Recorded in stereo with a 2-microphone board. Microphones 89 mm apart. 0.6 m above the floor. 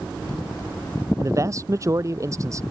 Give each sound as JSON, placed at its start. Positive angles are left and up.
{"t": 1.2, "sound": "a man speaking", "side_deg": -35}